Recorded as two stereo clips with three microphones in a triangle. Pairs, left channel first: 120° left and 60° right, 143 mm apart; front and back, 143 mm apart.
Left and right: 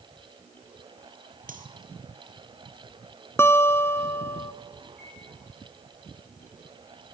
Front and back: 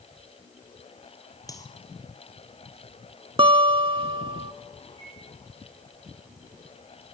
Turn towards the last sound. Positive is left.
turn(degrees=-65)